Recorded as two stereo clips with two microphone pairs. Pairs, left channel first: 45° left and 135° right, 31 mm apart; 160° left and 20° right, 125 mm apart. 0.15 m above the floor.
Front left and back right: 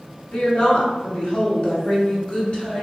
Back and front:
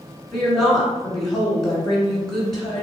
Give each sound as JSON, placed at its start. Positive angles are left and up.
{"t": 0.3, "sound": "a woman speaking", "azimuth_deg": 75, "distance_m": 1.6}